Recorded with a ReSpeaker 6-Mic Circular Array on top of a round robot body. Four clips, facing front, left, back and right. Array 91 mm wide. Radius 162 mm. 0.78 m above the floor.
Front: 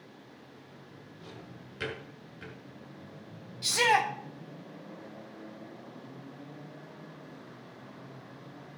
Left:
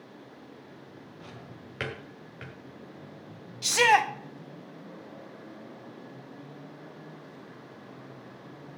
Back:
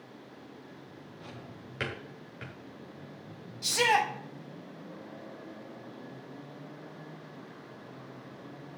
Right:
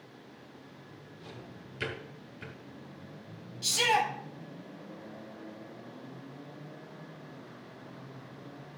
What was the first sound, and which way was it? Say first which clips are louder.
A drawer: right 1 dB, back 1 dB; 120° left.